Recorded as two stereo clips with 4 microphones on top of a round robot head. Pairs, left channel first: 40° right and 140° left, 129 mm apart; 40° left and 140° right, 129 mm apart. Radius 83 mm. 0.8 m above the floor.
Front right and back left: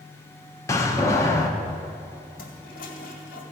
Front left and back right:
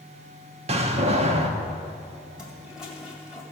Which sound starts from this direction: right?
A door slam, at 0.7 s.